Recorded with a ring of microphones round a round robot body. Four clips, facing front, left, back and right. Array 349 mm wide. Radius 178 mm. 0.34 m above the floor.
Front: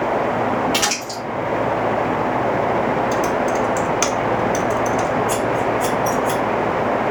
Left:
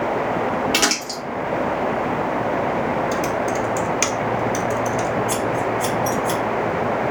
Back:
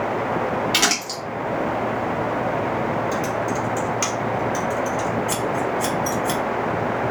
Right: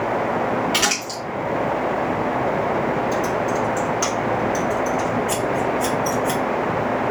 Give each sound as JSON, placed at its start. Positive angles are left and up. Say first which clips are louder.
{"t": 0.7, "sound": "crumpling", "louder": "left 1 dB, front 1 dB", "azimuth_deg": 125, "distance_m": 2.5}
{"t": 3.1, "sound": "typing on a keyboard", "louder": "even, front 5 dB", "azimuth_deg": 55, "distance_m": 0.8}
{"t": 5.3, "sound": "scissors", "louder": "even, front 4 dB", "azimuth_deg": 135, "distance_m": 1.7}